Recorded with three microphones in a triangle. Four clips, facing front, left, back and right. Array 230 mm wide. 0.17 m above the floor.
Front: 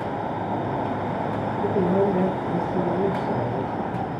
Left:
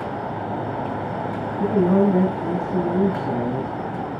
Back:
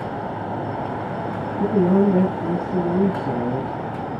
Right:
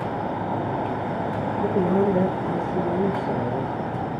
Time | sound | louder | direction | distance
1.6 | a man speaking | left 4 dB, back 4 dB | 145° left | 7 m